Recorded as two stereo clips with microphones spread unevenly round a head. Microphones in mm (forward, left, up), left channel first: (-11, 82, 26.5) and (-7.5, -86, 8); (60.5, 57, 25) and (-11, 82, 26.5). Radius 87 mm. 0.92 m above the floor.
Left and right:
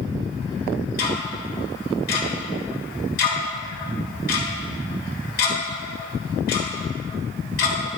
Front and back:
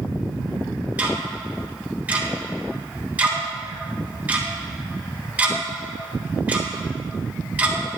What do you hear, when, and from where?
1.0 s ticking: 90° left, 3.5 m